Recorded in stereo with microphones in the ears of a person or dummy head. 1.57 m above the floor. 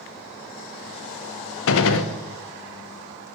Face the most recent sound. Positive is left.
turn(degrees=70)  # may be behind; listen again after turning